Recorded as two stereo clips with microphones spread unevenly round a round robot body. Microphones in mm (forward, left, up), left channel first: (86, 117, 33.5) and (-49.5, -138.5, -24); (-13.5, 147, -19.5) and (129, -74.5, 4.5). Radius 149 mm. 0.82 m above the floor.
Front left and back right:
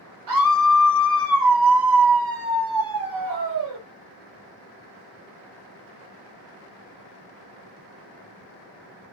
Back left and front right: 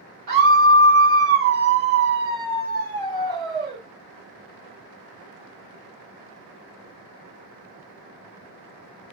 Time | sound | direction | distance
0.3 | a scream | 125° right | 2.5 m